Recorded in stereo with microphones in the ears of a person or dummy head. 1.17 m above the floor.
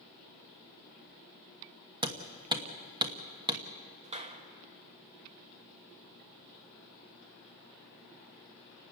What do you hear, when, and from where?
2.0 s hammering: 15° right (ahead or behind), 1.2 m
4.0 s a clap: 25° right (ahead or behind), 1.5 m